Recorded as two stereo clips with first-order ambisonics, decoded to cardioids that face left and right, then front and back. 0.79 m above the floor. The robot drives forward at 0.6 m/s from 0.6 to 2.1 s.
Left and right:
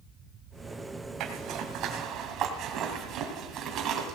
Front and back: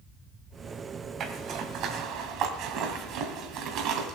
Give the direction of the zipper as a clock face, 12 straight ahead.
4 o'clock.